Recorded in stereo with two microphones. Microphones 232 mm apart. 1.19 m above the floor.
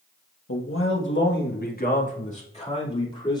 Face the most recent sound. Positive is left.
turn(degrees=20)  # may be behind; listen again after turning